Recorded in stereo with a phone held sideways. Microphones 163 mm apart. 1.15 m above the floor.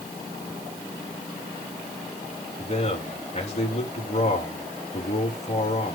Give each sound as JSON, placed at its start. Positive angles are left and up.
{"t": 2.6, "sound": "a man speaking", "side_deg": 45, "distance_m": 3.5}